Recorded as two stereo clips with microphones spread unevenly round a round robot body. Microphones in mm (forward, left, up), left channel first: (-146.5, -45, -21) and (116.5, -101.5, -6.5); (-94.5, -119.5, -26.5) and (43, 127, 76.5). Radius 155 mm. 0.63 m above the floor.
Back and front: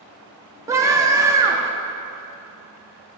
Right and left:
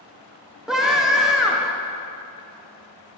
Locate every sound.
0.7 s a scream: 80° right, 0.5 m